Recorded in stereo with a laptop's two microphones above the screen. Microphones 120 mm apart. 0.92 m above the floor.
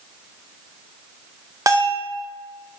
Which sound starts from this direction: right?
A bell, at 1.7 s.